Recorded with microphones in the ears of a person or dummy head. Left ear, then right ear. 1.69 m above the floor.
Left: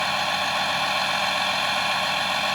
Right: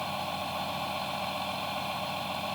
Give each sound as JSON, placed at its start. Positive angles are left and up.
{"t": 0.0, "sound": "a vehicle", "side_deg": 65}